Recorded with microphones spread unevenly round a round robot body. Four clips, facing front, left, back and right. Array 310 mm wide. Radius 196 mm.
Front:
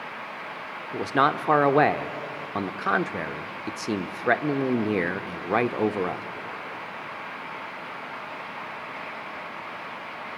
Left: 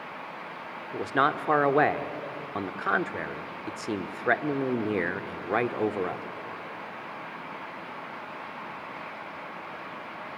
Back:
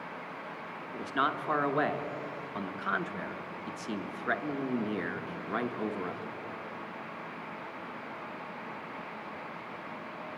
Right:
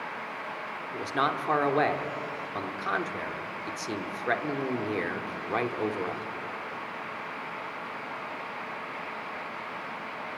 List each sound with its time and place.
0.9 s a man speaking: 20° left, 1.3 m